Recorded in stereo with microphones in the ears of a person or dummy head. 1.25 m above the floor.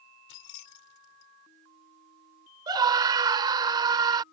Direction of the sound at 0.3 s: 80° left.